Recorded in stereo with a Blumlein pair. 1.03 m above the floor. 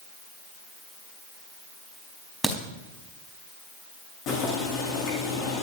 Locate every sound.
2.4 s a crack: 5° right, 4.5 m
4.3 s boiling: 30° left, 8.5 m